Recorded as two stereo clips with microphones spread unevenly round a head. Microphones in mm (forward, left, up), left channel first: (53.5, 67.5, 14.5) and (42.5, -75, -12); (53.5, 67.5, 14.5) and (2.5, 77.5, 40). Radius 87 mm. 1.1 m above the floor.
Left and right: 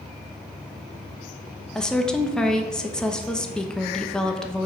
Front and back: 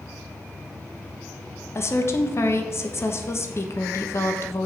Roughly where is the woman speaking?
Ahead.